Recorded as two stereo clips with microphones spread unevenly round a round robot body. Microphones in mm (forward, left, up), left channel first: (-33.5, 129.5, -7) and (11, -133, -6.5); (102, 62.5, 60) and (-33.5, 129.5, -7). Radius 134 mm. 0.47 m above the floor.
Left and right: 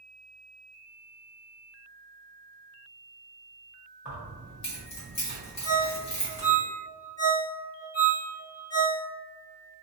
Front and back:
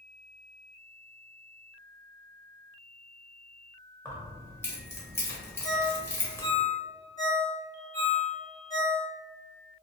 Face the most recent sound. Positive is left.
turn(degrees=125)